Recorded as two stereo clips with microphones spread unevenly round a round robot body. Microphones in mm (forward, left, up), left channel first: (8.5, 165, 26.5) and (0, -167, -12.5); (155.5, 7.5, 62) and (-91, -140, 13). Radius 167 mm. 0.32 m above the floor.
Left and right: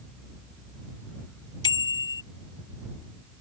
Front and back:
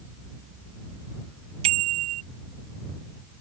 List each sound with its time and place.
1.6 s a bicycle bell: 165° left